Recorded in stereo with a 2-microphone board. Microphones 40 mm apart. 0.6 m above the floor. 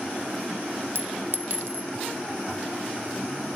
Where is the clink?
60° right (ahead or behind).